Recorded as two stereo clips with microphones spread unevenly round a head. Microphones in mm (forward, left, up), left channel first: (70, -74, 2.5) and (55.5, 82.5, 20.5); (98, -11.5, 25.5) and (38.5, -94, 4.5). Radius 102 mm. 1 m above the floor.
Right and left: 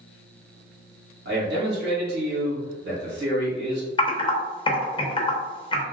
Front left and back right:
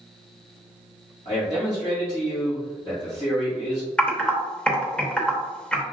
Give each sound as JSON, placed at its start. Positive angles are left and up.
{"t": 1.2, "sound": "a man speaking", "azimuth_deg": 120, "distance_m": 1.6}
{"t": 4.0, "sound": "typing on a keyboard", "azimuth_deg": -25, "distance_m": 0.8}